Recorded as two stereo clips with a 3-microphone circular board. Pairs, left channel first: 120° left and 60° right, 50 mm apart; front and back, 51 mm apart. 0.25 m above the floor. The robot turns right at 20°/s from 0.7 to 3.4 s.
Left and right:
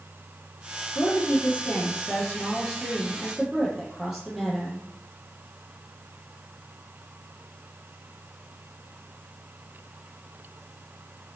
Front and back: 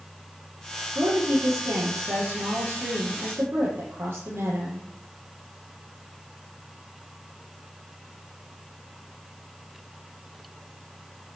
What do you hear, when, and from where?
0.9 s a woman speaking: 165° left, 8.5 m; by 4.8 s 145° right, 8.5 m